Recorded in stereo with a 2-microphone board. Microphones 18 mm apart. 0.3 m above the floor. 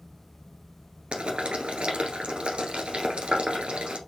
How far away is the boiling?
About 1.4 m.